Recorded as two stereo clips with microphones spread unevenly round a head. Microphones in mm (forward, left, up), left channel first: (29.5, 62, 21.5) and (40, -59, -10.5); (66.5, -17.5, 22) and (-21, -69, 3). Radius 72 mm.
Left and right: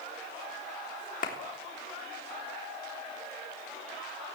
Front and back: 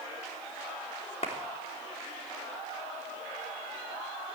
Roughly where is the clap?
Left.